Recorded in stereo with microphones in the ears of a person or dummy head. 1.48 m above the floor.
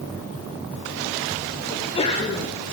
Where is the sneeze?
30° left (ahead or behind), 1.5 m.